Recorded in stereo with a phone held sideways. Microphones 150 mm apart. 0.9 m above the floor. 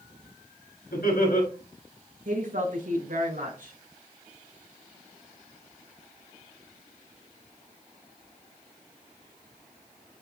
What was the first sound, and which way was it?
Laughter, 80° left.